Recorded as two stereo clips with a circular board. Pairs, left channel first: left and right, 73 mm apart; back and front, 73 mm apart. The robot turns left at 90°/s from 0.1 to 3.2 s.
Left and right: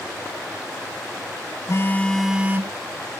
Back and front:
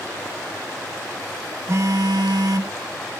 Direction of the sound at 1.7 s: 50° left.